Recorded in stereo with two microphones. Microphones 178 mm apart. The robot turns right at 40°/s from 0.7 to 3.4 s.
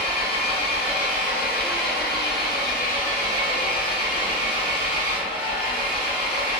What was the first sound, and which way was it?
An engine running, 35° left.